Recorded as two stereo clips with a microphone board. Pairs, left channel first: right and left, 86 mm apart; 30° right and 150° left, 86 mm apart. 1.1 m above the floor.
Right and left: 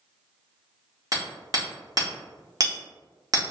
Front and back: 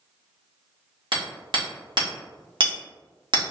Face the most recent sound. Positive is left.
turn(degrees=130)